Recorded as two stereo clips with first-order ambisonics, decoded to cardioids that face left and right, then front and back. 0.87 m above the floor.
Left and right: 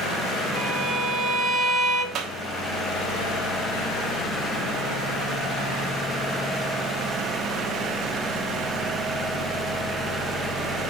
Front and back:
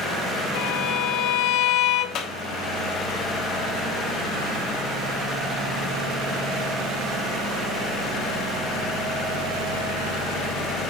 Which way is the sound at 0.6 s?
5° right.